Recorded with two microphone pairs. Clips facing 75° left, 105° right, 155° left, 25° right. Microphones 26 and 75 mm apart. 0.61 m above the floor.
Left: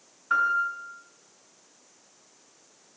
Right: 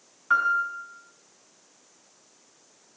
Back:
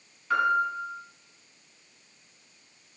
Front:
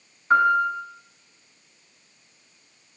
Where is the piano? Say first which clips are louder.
Right 1 dB, front 6 dB; 80° right, 7 m.